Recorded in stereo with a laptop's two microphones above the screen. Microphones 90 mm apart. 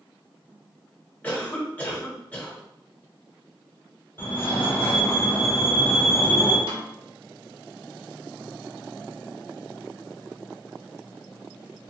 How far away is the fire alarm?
About 1.3 m.